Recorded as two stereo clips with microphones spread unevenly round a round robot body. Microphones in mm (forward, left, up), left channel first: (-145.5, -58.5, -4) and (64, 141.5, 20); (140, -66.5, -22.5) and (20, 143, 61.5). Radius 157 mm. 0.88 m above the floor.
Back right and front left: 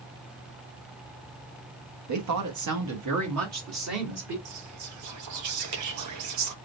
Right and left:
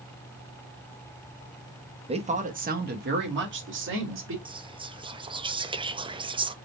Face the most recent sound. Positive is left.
turn(degrees=35)